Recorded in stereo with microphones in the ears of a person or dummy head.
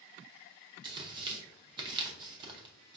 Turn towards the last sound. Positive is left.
turn(degrees=-20)  # may be behind; listen again after turning